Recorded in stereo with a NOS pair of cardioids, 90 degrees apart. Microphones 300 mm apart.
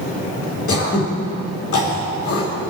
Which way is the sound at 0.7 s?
50° left.